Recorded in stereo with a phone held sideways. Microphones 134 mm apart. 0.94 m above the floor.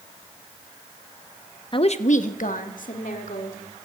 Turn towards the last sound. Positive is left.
turn(degrees=80)